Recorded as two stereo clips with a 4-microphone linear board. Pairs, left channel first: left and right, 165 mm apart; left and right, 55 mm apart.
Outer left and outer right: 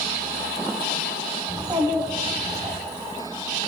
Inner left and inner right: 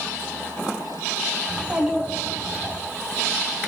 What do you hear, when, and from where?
1.5 s a child speaking: 20° right (ahead or behind), 3 m